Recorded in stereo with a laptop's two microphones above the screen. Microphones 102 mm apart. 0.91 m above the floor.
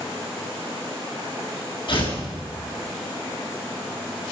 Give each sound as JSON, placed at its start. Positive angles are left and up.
{"t": 1.9, "sound": "tearing paper", "side_deg": 55, "distance_m": 7.5}